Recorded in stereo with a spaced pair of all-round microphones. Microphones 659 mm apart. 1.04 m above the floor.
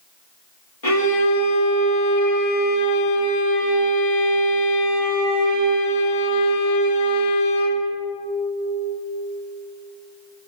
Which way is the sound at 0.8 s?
55° left (ahead or behind).